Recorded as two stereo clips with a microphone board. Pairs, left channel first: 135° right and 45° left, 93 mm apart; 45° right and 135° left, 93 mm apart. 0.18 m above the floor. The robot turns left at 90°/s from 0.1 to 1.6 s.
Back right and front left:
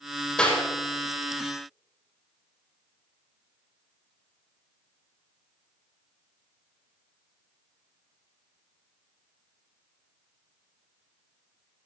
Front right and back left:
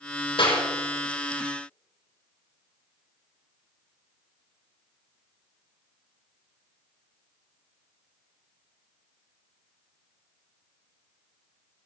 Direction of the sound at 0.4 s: 55° right.